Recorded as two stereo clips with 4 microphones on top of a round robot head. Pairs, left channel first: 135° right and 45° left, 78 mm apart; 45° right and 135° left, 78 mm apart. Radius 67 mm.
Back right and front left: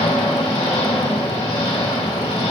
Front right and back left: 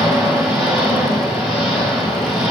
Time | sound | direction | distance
0.0 | an engine running | 140° right | 4.5 m